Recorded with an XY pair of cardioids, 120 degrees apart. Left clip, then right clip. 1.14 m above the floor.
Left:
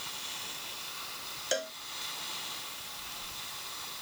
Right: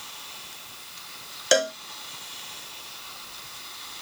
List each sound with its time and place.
1.5 s a cowbell: 60° right